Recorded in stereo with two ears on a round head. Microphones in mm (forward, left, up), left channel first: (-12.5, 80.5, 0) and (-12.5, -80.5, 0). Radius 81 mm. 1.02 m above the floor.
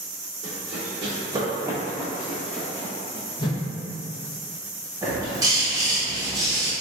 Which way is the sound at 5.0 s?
20° right (ahead or behind).